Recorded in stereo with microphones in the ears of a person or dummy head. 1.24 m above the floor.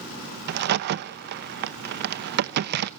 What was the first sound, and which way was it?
A crack, 60° right (ahead or behind).